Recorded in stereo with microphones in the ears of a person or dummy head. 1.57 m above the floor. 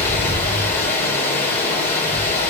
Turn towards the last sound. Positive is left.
turn(degrees=10)  # may be behind; listen again after turning